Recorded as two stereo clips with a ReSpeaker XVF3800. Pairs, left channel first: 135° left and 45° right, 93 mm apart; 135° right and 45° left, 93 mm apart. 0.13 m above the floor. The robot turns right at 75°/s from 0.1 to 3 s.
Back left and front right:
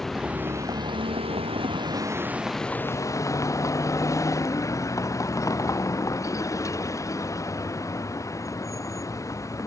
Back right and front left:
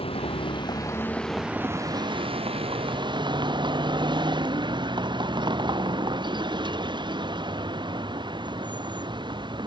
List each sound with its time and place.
0.0 s a vehicle: 140° right; by 9.7 s 80° left